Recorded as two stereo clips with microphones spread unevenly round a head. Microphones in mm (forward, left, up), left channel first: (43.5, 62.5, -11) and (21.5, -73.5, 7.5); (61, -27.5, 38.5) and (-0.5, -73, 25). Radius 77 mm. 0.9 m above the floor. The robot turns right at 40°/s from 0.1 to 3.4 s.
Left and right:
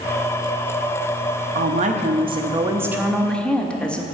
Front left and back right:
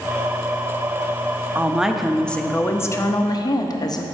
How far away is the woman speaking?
About 0.7 m.